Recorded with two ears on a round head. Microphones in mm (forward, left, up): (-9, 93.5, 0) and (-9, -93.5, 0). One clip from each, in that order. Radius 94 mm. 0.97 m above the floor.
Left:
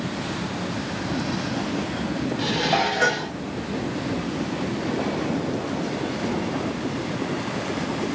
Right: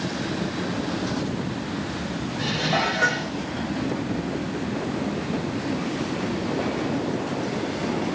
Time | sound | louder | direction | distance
2.4 | dishes clattering | left 1 dB | 55° left (ahead or behind) | 1.0 m